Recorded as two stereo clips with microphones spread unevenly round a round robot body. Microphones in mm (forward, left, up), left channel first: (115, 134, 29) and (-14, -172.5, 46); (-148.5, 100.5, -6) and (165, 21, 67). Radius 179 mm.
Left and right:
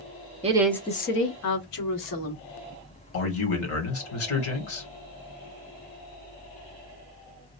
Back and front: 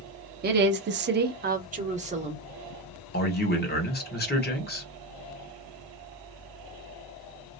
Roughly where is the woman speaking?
Ahead right.